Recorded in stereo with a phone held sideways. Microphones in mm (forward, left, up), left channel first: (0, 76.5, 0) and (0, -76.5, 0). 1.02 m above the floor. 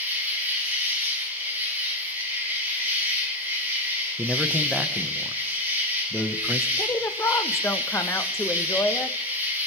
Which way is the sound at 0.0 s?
15° right (ahead or behind).